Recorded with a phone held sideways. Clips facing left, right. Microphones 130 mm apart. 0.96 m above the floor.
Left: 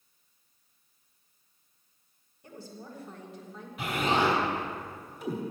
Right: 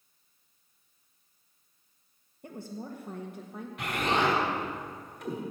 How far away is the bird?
I don't hear a bird.